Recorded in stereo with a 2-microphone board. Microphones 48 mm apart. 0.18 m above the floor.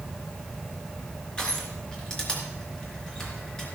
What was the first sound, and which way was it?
Crushing, 15° left (ahead or behind).